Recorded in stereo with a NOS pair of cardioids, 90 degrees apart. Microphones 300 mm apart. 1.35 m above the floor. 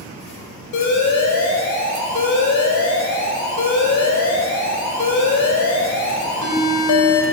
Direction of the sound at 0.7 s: 70° left.